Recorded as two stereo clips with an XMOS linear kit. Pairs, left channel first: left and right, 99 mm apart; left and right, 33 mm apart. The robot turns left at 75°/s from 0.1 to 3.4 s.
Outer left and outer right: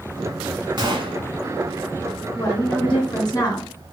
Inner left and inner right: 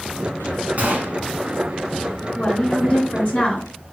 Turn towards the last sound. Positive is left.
turn(degrees=55)